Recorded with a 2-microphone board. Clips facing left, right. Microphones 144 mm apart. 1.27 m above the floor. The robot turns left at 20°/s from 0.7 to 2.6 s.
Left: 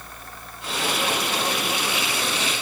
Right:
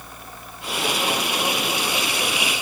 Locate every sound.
Only background noise.